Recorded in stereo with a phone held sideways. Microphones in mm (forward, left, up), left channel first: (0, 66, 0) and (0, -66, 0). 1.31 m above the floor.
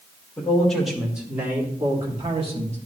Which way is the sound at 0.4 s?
10° left (ahead or behind).